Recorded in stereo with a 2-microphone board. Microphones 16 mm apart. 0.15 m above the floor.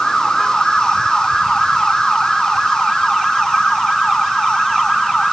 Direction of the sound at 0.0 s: 45° left (ahead or behind).